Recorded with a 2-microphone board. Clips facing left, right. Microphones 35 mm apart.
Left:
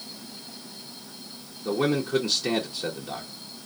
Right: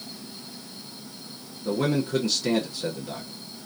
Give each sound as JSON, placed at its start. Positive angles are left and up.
{"t": 1.6, "sound": "a man speaking", "side_deg": 10, "distance_m": 0.9}